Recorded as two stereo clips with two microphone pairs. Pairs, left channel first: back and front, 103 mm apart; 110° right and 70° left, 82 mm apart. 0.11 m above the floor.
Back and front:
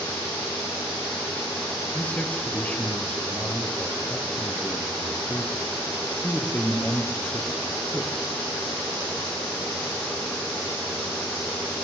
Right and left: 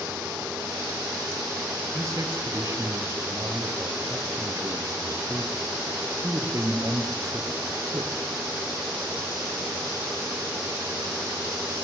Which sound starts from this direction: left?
A man speaking, at 1.9 s.